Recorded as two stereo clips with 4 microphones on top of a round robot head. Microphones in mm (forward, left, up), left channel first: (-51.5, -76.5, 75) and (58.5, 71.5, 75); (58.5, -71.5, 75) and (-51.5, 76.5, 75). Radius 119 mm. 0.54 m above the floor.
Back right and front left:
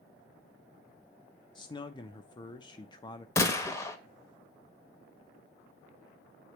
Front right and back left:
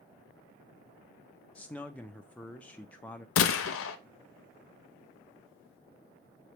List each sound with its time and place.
1.6 s a man speaking: 125° right, 0.7 m
3.4 s a gunshot: 50° right, 0.7 m